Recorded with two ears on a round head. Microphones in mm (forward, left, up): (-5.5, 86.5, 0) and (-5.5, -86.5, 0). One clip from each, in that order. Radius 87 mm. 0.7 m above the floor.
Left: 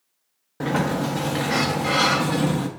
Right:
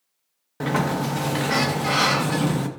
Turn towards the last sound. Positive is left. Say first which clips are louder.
# even
turn(degrees=-15)  # may be behind; listen again after turning